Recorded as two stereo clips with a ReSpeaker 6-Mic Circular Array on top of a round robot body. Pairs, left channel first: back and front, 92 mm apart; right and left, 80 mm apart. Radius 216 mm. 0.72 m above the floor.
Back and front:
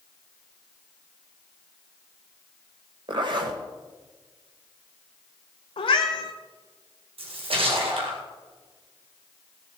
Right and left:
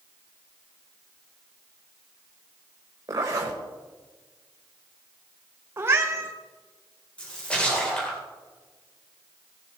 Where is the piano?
I don't hear a piano.